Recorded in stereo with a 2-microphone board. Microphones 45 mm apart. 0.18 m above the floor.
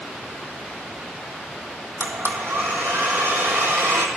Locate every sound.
2.0 s a blender: 65° right (ahead or behind), 1.0 m